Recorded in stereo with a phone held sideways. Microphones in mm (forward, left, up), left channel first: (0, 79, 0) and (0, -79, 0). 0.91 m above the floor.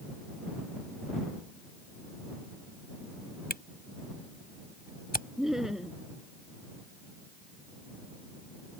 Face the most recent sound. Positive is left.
turn(degrees=0)  # may be behind; listen again after turning